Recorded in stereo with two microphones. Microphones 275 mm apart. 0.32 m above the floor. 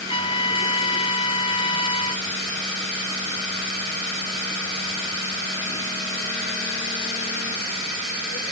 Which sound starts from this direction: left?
A trumpet, at 0.1 s.